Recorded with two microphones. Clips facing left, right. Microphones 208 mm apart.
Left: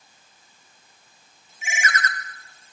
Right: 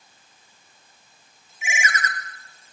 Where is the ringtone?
15° right (ahead or behind), 1.1 m.